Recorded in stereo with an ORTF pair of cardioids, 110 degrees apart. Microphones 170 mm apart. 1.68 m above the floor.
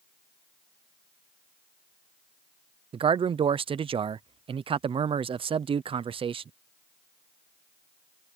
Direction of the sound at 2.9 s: 35° right.